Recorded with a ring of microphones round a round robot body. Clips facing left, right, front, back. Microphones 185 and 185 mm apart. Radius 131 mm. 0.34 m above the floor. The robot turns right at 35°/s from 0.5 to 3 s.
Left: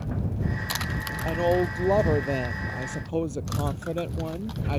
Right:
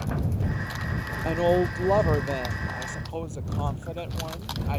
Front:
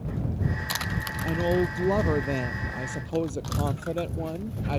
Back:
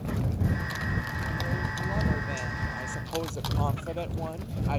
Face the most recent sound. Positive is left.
turn(degrees=50)